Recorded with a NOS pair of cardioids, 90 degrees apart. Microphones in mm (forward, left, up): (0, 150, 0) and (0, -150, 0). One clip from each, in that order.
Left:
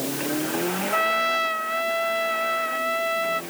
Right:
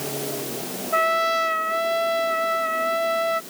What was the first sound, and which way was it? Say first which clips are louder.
A trumpet: right 3 dB; 30° right.